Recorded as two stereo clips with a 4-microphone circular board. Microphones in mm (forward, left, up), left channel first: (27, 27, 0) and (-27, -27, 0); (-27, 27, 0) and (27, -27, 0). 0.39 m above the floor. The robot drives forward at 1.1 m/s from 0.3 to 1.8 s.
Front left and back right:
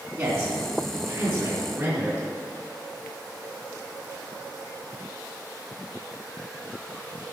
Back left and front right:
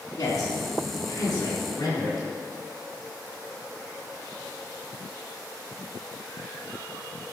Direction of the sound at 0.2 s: 175° right.